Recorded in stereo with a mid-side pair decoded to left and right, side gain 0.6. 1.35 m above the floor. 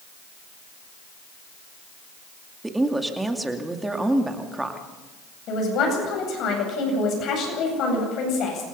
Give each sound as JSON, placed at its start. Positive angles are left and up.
{"t": 2.6, "sound": "a woman speaking", "azimuth_deg": -10, "distance_m": 2.5}
{"t": 5.5, "sound": "a man speaking", "azimuth_deg": 55, "distance_m": 8.5}